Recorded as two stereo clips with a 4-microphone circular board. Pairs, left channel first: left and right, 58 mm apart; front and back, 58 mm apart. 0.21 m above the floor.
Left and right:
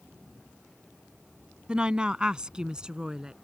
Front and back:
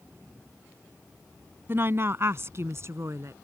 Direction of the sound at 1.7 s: 155° right.